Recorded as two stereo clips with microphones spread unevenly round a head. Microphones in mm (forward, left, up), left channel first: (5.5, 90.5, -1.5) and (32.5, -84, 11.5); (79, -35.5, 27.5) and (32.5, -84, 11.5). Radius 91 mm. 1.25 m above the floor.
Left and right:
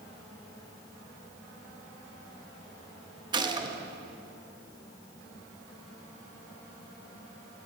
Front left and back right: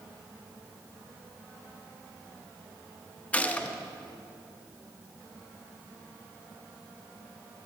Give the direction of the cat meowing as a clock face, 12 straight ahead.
I don't hear a cat meowing.